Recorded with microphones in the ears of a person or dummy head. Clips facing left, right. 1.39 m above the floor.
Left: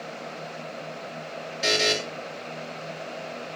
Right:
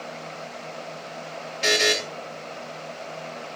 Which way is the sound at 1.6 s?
5° left (ahead or behind).